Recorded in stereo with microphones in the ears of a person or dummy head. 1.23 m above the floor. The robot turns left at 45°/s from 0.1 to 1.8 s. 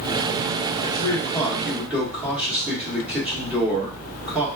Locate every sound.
0.8 s a man speaking: 40° left, 1.5 m; by 4.5 s 5° right, 1.5 m